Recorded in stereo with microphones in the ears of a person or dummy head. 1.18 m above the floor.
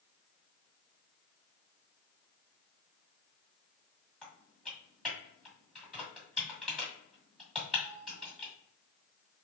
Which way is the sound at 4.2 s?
5° left (ahead or behind).